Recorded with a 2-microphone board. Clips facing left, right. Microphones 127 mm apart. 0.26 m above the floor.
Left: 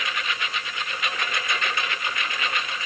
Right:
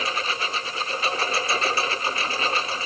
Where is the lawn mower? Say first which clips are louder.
Right 3 dB; 35° right (ahead or behind).